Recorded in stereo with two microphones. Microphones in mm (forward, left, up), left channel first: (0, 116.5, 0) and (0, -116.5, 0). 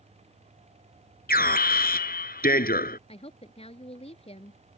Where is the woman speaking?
25° left (ahead or behind).